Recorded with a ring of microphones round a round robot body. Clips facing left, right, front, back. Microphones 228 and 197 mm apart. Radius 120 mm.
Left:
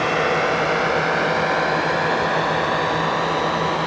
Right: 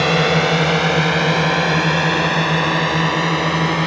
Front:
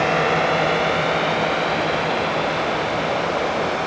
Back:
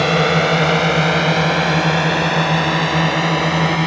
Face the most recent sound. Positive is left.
turn(degrees=-145)